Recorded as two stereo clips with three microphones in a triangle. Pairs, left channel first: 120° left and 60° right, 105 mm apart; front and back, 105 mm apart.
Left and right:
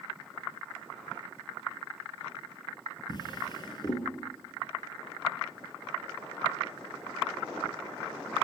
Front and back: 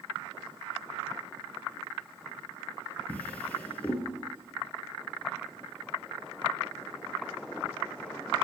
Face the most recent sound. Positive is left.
turn(degrees=75)